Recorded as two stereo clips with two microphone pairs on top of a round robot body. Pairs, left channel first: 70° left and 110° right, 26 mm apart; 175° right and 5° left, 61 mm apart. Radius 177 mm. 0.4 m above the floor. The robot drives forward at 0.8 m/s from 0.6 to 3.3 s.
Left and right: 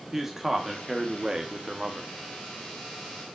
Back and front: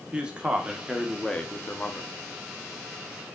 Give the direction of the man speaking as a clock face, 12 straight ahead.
1 o'clock.